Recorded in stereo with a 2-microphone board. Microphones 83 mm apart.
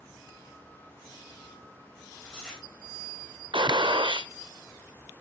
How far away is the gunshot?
About 0.8 m.